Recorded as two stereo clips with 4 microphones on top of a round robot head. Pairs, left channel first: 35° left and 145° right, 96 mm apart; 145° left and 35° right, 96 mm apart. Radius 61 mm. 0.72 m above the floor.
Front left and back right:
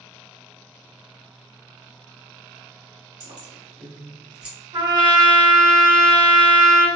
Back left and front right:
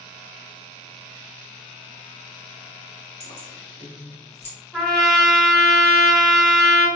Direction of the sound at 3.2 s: 170° left.